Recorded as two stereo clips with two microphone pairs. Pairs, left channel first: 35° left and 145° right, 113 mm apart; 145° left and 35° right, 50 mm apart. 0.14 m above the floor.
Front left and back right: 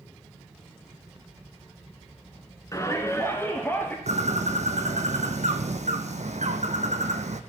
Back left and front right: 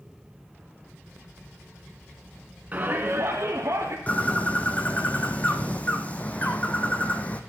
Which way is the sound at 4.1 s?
155° right.